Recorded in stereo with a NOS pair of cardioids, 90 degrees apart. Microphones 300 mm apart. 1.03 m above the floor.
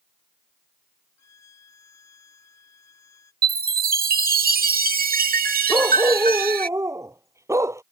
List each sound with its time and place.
1.2 s a violin: 60° left
3.4 s a chime: 30° right
5.7 s a dog barking: 10° right